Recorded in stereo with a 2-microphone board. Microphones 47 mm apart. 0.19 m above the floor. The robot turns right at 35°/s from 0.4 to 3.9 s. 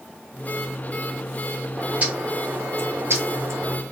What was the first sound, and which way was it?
A bird, 155° right.